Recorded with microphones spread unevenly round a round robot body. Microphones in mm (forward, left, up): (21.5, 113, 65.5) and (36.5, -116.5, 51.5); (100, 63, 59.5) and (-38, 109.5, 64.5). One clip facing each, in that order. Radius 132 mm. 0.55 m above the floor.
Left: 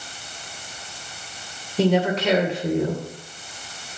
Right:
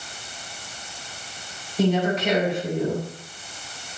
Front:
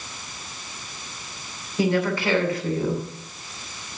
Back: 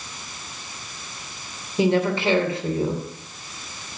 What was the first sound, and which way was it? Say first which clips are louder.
A woman speaking: left 2 dB, back 2 dB; 95° left.